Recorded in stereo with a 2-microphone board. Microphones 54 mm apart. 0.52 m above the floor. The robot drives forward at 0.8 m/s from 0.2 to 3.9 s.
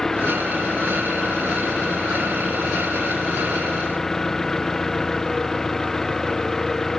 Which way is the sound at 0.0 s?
10° left (ahead or behind).